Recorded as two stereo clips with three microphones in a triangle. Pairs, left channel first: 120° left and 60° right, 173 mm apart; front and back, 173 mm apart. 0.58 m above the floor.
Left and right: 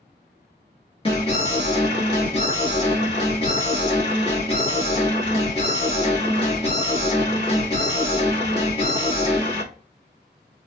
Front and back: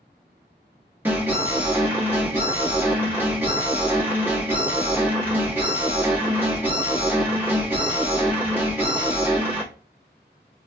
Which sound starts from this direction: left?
An alarm, at 1.1 s.